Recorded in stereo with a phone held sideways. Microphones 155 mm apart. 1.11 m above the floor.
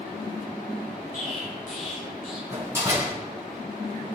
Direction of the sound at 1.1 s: 60° left (ahead or behind).